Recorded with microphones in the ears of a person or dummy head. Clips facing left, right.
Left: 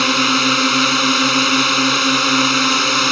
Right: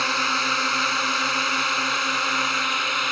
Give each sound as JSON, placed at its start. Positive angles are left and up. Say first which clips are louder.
{"t": 0.0, "sound": "a drone", "louder": "left 11 dB", "side_deg": 50}